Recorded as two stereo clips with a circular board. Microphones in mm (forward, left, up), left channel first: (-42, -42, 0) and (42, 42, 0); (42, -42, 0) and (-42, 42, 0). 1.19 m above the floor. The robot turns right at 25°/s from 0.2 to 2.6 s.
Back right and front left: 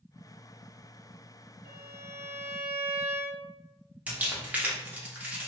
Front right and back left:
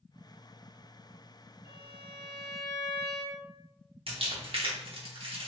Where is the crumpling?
120° left, 0.8 m.